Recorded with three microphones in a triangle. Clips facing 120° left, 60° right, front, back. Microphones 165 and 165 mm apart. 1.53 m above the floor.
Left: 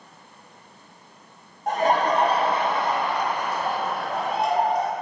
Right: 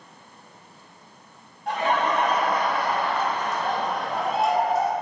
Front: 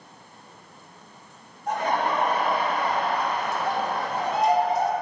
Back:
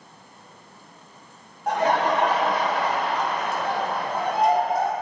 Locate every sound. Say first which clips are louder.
1.7 s laughter: left 3 dB, back 4 dB; 165° left, 1.5 m; by 4.9 s 145° right, 2 m